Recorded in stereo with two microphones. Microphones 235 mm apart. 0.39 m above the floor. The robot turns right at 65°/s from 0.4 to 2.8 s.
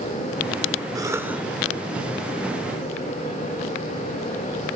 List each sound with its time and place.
0.9 s a cough: 15° right (ahead or behind), 1.1 m; by 1.4 s 5° right (ahead or behind), 1.1 m